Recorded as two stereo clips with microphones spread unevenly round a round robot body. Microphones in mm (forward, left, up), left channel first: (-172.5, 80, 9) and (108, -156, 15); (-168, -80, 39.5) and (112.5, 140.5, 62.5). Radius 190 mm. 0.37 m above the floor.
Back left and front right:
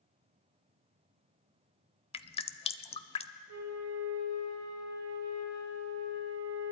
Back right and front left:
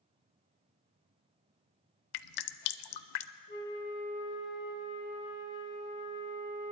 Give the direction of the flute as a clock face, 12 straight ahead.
3 o'clock.